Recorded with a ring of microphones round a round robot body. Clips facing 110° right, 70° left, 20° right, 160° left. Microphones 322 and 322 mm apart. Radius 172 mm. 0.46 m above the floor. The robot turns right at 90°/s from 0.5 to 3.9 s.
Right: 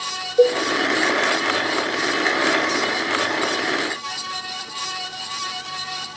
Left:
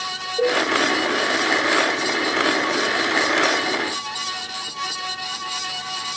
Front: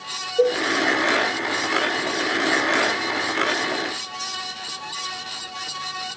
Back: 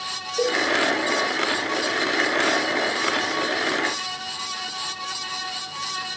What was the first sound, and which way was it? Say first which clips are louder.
A cowbell: right 6 dB, front 5 dB; 165° right.